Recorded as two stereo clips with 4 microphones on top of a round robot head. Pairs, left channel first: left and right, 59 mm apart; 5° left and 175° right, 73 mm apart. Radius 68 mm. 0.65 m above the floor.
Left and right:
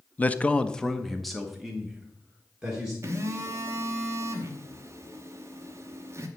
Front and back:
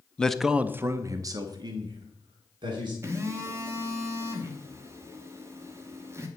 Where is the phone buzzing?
125° right, 0.9 m.